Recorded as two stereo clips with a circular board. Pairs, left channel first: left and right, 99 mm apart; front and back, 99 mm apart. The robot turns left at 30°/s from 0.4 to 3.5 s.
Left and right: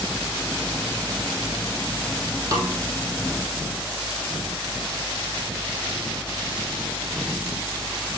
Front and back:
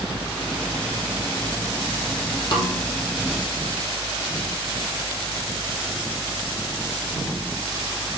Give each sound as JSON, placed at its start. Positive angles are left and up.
{"t": 2.5, "sound": "a snare drum", "azimuth_deg": -45, "distance_m": 4.0}